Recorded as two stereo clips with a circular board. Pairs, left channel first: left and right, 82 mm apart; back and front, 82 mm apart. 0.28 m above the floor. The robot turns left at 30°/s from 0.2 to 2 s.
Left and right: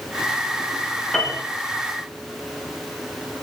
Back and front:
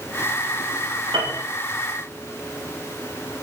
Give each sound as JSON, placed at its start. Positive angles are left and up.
{"t": 1.1, "sound": "a piano", "azimuth_deg": 5, "distance_m": 9.5}